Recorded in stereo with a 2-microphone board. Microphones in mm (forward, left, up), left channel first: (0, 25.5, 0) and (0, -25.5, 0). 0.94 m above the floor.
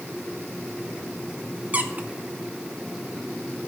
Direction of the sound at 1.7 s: 30° right (ahead or behind).